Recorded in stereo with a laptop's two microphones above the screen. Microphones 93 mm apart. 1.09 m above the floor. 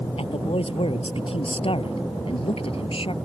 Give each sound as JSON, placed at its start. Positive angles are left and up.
{"t": 0.2, "sound": "a man speaking", "side_deg": 80}